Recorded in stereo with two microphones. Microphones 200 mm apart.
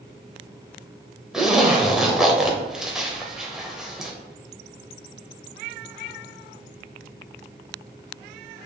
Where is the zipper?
Centre (ahead or behind), 0.7 m.